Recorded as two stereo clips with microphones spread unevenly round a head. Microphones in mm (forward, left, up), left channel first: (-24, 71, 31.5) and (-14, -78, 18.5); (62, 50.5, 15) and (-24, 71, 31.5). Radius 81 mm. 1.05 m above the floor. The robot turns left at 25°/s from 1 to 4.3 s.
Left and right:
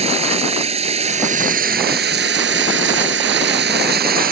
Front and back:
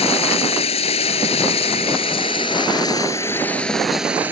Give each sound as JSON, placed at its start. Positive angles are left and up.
{"t": 0.0, "sound": "running water", "azimuth_deg": -30}